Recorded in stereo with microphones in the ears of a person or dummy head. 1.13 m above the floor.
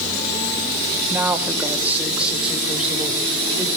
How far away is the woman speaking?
About 1.8 m.